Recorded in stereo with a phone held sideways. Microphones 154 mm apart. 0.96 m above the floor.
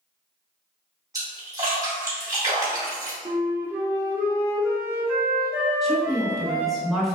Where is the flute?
15° right (ahead or behind), 1.1 m.